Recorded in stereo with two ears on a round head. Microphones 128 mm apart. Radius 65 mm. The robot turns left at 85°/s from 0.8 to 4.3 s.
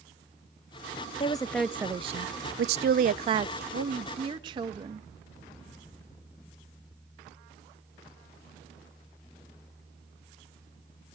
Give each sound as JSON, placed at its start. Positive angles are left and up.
{"t": 1.2, "sound": "a woman speaking", "azimuth_deg": 35, "distance_m": 0.6}
{"t": 3.7, "sound": "a woman speaking", "azimuth_deg": -100, "distance_m": 1.6}